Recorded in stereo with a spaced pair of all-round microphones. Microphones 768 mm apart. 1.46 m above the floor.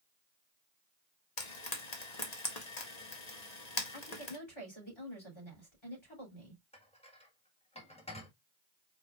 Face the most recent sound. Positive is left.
turn(degrees=10)  # may be behind; listen again after turning